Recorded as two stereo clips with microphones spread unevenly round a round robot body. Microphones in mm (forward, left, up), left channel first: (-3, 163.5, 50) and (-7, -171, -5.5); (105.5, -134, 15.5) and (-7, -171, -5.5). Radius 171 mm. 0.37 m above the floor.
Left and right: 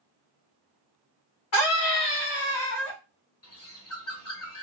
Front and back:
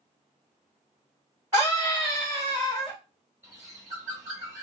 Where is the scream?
135° left, 2 m; by 3.0 s 115° left, 2.5 m.